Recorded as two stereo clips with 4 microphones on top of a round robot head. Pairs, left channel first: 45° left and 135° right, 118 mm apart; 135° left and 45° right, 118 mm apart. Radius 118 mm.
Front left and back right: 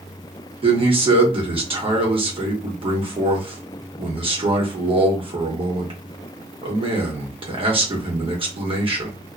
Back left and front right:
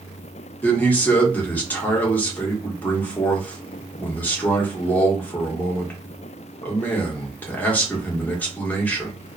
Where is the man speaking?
155° right, 1.2 m.